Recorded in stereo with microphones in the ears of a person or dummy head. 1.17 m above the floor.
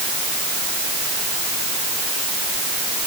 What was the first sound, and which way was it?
Only background noise.